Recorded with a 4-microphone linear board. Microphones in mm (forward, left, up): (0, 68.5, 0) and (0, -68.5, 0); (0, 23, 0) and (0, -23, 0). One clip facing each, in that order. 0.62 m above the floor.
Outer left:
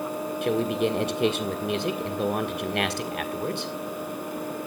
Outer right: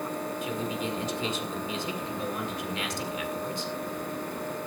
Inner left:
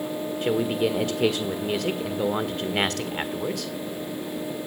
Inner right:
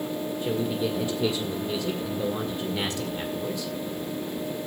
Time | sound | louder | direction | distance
0.4 | a man speaking | outer left 11 dB, inner left 5 dB | 65° left (ahead or behind) | 1.8 m